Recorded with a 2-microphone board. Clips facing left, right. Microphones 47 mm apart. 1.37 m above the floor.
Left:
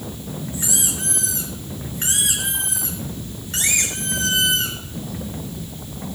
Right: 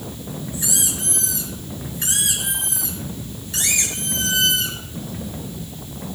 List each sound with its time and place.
0.5 s a squeak: 45° left (ahead or behind), 5.5 m